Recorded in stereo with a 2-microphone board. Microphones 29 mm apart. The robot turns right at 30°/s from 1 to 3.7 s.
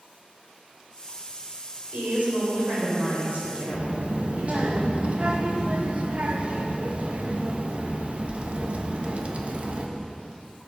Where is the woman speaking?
105° right, 4 m; by 4.7 s 50° right, 4 m.